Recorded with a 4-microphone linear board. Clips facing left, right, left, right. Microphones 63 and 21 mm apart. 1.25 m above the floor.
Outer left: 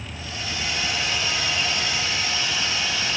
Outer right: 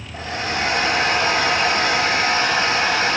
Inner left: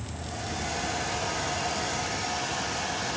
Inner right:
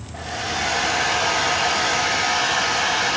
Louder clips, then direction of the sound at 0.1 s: Outer right 9 dB, inner right 10 dB; 55° right (ahead or behind).